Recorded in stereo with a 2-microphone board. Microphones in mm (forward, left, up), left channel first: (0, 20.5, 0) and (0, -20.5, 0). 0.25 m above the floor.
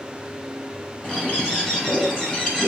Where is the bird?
20° left (ahead or behind), 1.5 m.